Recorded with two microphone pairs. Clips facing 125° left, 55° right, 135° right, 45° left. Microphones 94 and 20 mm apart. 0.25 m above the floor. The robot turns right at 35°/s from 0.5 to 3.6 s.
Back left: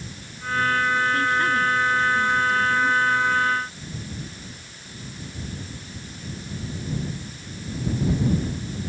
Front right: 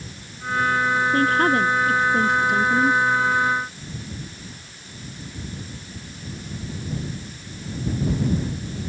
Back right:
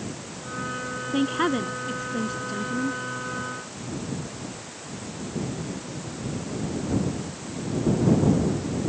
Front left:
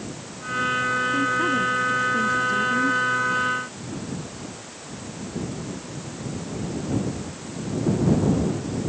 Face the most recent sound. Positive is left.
turn(degrees=-10)